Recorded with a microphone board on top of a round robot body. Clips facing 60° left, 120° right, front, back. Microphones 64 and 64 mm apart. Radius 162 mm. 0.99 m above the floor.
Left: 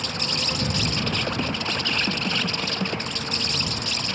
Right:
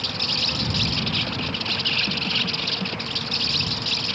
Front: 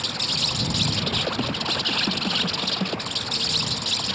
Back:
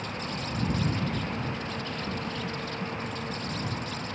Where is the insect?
15° right.